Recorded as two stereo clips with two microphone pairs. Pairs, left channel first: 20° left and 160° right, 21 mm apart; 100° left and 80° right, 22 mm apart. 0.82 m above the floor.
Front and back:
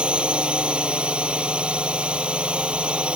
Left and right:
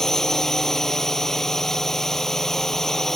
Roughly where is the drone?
Behind.